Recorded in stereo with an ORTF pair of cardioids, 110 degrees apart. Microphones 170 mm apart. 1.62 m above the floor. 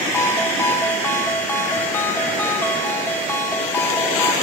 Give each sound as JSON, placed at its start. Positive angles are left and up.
{"t": 0.1, "sound": "a ringtone", "azimuth_deg": 15, "distance_m": 1.8}